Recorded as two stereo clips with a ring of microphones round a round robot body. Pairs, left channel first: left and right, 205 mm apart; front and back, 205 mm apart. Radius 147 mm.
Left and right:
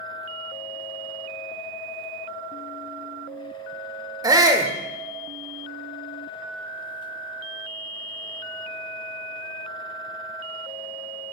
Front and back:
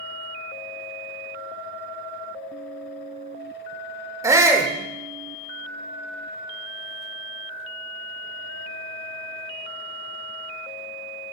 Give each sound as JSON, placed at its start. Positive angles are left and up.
{"t": 4.2, "sound": "a shout", "azimuth_deg": -130, "distance_m": 0.9}